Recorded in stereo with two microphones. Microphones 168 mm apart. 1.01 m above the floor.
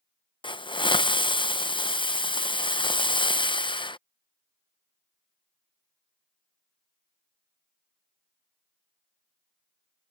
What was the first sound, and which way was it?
A hiss, 30° left (ahead or behind).